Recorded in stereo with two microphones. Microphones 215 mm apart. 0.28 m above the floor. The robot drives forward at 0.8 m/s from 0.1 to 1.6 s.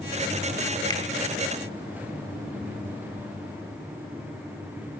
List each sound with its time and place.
0.9 s a finger snap: 20° left (ahead or behind), 0.9 m